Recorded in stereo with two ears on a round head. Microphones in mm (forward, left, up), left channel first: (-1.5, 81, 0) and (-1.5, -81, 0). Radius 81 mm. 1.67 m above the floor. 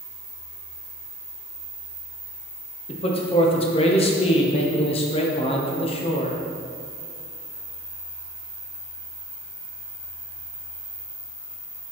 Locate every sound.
2.9 s a man speaking: 35° left (ahead or behind), 1.0 m